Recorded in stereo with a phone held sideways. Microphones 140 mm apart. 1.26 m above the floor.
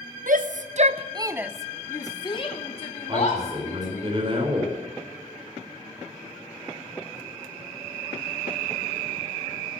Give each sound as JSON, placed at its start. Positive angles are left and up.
{"t": 0.3, "sound": "a shout", "side_deg": -70, "distance_m": 0.8}
{"t": 3.1, "sound": "a man speaking", "side_deg": -40, "distance_m": 4.0}